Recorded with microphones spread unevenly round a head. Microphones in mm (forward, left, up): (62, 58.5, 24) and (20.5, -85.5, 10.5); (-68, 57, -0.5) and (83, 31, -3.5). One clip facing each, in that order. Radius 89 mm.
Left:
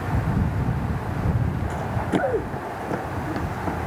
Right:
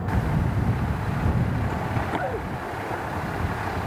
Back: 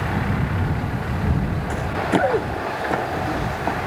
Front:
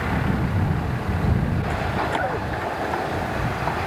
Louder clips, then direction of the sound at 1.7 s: Left 3 dB, back 7 dB; 130° left.